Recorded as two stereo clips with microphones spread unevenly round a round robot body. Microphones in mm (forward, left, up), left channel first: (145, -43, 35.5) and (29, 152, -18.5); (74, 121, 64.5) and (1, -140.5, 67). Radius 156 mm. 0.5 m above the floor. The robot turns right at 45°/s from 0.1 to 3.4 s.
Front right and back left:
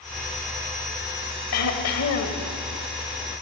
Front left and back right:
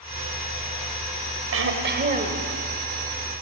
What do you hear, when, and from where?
1.5 s throat clearing: 75° right, 3 m; by 2.5 s 30° right, 3 m